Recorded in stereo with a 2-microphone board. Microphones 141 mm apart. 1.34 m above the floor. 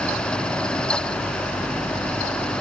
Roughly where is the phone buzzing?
I don't hear a phone buzzing.